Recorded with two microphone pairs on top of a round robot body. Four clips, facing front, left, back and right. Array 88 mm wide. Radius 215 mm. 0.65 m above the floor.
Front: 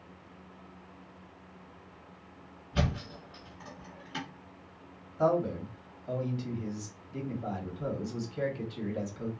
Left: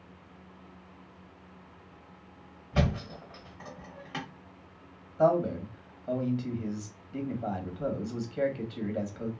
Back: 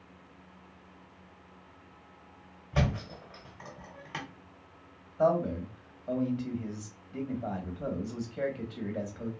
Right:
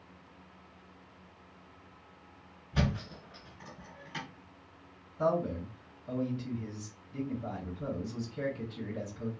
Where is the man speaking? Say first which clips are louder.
Left 5 dB, back 1 dB; 110° left, 2 m.